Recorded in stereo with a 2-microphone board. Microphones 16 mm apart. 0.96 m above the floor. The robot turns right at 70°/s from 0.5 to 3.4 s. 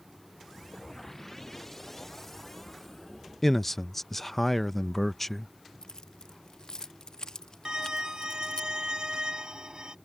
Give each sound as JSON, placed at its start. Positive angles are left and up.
{"t": 3.4, "sound": "a man speaking", "side_deg": 15}
{"t": 5.8, "sound": "keys jangling", "side_deg": 55}
{"t": 7.7, "sound": "a violin", "side_deg": -65}